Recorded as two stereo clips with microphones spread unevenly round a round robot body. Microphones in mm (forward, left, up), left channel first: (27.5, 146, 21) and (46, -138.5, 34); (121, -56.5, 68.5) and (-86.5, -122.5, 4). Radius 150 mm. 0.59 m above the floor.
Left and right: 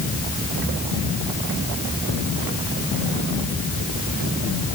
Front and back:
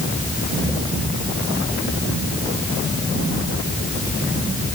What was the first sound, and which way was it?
Only background noise.